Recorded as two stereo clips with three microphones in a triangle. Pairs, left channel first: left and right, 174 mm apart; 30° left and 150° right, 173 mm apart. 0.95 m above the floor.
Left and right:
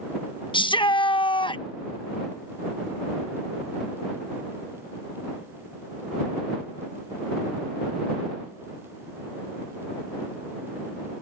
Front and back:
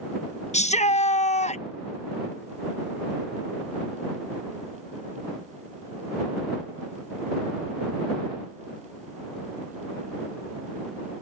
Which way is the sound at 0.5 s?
45° left.